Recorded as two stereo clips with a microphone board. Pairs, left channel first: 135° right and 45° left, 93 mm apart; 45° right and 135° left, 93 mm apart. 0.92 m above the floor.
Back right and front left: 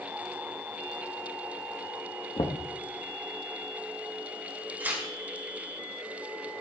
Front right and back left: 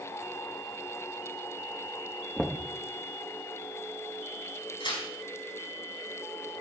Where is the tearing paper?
25° right, 4.5 m.